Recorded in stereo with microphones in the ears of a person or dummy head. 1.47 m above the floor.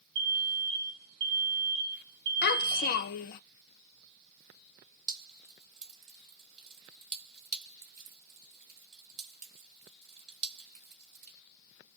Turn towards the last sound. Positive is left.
turn(degrees=-35)  # may be behind; listen again after turning